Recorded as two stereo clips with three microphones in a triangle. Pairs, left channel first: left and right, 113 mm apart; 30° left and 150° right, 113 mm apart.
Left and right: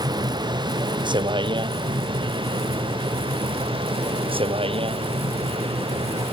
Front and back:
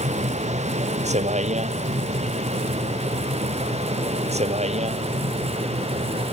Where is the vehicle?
140° right; by 6.3 s 125° right.